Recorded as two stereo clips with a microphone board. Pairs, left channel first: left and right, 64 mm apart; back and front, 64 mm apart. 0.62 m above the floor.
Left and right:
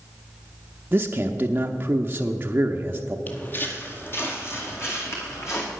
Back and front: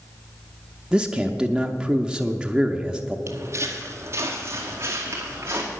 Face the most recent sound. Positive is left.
turn(degrees=50)